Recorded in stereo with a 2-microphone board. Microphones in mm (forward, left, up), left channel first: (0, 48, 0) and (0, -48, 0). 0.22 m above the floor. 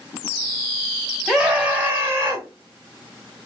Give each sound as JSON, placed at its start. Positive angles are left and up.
{"t": 1.3, "sound": "a scream", "side_deg": -5, "distance_m": 1.4}